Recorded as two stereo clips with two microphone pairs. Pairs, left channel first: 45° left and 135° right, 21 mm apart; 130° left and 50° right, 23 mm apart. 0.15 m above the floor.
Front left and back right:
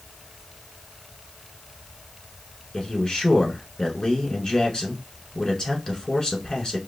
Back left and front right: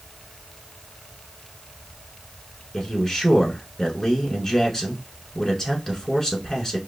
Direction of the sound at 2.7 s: 75° left.